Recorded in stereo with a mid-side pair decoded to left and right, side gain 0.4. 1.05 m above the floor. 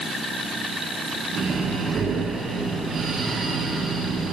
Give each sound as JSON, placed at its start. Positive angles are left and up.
{"t": 1.3, "sound": "breathing", "azimuth_deg": -55, "distance_m": 1.5}